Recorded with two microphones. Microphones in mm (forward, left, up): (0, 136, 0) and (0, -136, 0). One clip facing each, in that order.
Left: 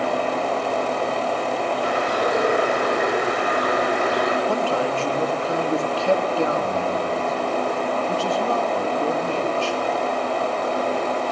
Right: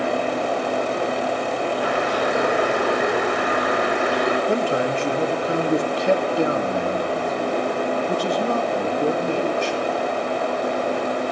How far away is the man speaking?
About 3 m.